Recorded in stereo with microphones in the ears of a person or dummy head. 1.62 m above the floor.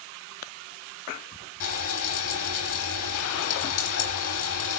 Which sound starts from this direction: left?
Frying, at 1.6 s.